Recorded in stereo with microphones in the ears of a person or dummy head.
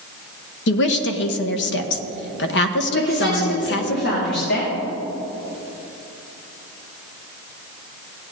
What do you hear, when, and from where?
0.7 s a woman speaking: 55° left (ahead or behind), 1.0 m
2.9 s a woman speaking: 55° left (ahead or behind), 2.5 m